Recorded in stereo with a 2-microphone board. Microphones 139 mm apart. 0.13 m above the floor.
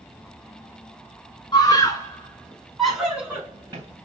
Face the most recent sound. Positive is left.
turn(degrees=-25)  # may be behind; listen again after turning